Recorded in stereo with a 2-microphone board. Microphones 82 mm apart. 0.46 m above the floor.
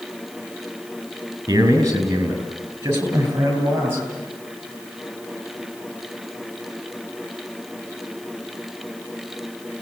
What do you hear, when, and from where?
1.5 s a man speaking: 35° right (ahead or behind), 6 m; by 4.0 s 30° right (ahead or behind), 9 m